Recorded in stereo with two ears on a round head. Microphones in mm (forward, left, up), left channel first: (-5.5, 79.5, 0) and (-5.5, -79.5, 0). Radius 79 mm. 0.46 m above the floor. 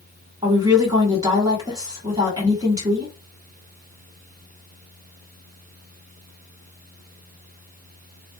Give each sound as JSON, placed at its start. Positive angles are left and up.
{"t": 0.4, "sound": "a woman speaking", "side_deg": -20, "distance_m": 1.7}